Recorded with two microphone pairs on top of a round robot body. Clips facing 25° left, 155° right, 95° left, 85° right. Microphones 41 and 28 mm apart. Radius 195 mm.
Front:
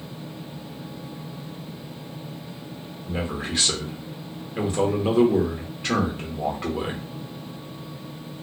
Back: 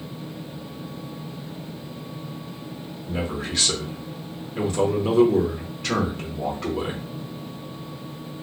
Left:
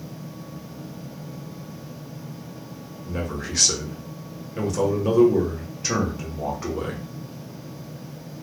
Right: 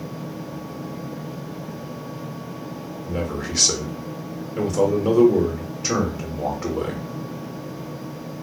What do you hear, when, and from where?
3.0 s a man speaking: 15° right, 1.1 m